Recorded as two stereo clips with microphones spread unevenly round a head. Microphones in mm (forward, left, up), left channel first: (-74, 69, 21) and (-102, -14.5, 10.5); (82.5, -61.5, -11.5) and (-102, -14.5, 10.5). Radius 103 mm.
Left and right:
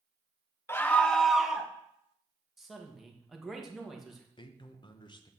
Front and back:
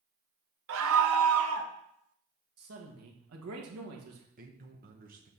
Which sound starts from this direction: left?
A man speaking, at 4.4 s.